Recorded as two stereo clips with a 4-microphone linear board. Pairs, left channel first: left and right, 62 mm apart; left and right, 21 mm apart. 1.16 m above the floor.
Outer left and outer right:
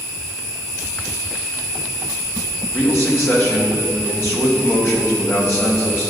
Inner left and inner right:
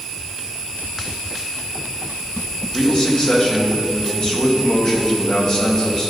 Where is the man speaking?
40° left (ahead or behind), 1.8 m.